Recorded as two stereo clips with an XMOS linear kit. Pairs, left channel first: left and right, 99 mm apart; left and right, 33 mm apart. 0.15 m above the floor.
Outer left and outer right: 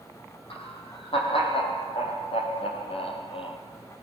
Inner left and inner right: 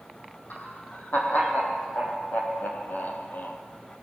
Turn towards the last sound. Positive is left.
turn(degrees=65)  # may be behind; listen again after turning